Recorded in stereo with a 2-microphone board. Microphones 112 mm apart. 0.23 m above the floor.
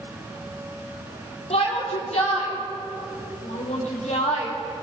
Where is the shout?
65° left (ahead or behind), 6.5 m; by 4.5 s 80° left, 6 m.